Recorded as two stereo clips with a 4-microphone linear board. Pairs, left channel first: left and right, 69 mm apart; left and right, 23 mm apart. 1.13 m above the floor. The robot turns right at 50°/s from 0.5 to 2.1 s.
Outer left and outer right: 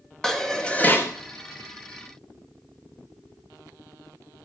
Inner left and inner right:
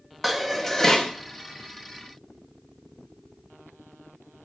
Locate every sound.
0.2 s dishes clattering: 5° left, 1.0 m; by 1.1 s 35° left, 1.0 m